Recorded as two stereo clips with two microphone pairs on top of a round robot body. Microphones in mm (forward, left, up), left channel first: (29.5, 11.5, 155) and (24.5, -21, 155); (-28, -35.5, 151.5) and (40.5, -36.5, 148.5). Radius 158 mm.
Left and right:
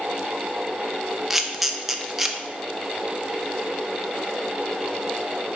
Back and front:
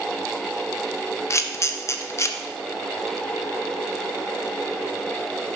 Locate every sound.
1.3 s a camera shutter: 170° right, 0.6 m